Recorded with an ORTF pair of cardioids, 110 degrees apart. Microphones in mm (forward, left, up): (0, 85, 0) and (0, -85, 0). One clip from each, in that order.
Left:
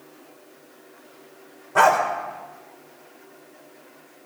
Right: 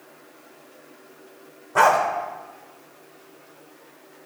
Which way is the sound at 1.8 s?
Straight ahead.